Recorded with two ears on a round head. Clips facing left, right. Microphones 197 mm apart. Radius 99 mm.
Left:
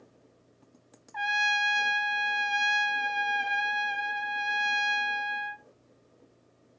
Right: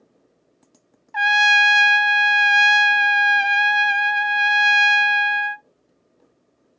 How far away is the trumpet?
About 0.5 m.